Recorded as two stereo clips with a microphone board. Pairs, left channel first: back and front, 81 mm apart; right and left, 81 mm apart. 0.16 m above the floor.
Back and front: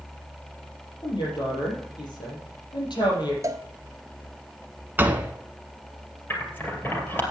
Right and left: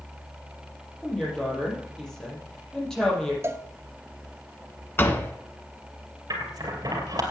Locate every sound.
1.0 s a woman speaking: 170° right, 5.5 m
3.4 s a cowbell: 40° left, 0.9 m
5.0 s a door slam: 50° right, 1.2 m
6.3 s scissors: 120° left, 2.5 m